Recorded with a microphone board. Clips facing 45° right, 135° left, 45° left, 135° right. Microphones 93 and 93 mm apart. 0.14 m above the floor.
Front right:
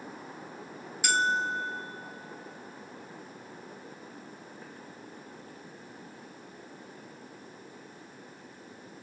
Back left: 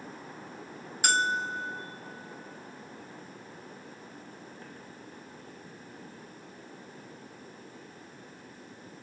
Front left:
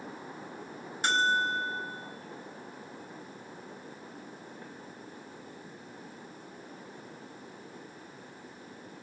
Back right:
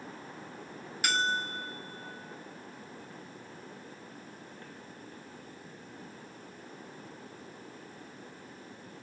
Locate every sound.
1.0 s a bell: 105° left, 0.7 m